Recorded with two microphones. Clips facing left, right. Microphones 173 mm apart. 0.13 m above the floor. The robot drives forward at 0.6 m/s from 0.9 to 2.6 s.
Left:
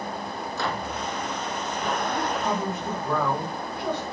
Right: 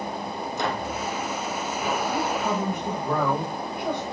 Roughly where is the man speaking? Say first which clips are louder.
Right 1 dB; centre.